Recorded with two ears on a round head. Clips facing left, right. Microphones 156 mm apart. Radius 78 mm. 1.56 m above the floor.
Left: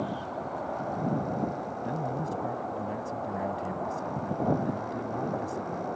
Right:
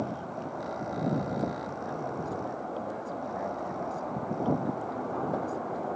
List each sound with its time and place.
1.8 s a man speaking: 30° left (ahead or behind)